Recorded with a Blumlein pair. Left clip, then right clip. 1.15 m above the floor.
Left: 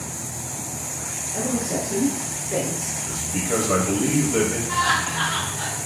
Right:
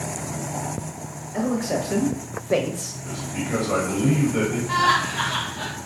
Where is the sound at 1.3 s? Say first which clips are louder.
Right 2 dB; 10° right, 1.0 m; by 2.9 s 70° right, 0.5 m.